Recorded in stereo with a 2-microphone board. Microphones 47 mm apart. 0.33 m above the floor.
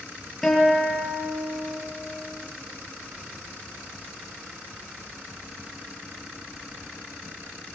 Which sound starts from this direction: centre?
A guitar, at 0.4 s.